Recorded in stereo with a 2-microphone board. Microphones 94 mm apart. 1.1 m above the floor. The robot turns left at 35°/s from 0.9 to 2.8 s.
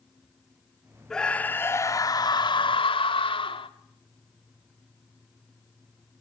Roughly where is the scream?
Behind.